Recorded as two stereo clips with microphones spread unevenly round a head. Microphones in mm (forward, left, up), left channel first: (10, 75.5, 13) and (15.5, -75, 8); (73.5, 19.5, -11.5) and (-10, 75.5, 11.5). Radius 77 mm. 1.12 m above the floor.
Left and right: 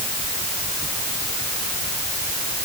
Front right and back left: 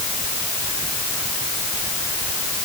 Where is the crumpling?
I don't hear crumpling.